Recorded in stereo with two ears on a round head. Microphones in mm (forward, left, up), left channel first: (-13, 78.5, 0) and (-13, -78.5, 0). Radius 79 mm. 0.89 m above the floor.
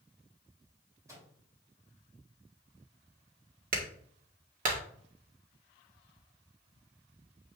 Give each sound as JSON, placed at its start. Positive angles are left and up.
{"t": 1.1, "sound": "a microwave", "side_deg": -20, "distance_m": 3.5}
{"t": 3.7, "sound": "a clap", "side_deg": -50, "distance_m": 1.6}